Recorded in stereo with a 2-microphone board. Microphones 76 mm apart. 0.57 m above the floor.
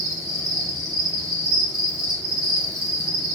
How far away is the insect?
About 1.2 m.